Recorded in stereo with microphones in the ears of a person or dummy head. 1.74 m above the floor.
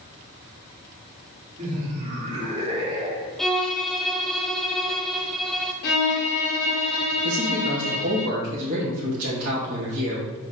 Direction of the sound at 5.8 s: 55° left (ahead or behind).